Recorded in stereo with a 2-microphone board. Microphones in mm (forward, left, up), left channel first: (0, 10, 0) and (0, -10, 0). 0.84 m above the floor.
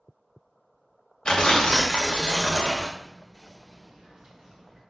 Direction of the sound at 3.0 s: 30° right (ahead or behind).